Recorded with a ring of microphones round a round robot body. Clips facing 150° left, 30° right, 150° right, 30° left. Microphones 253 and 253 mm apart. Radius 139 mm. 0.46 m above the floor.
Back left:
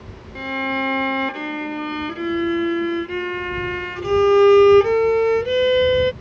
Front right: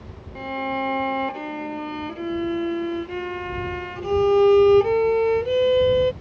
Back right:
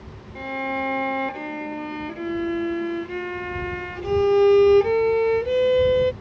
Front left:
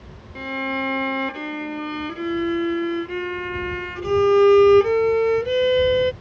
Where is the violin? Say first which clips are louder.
Back left 3 dB, front left 2 dB; 95° left.